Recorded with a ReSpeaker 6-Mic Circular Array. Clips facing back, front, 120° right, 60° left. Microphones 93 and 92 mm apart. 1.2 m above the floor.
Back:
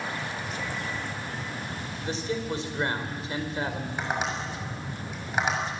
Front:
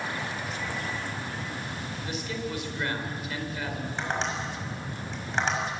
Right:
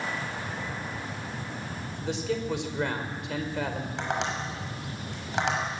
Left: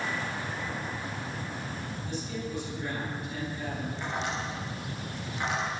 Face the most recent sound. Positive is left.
turn(degrees=-100)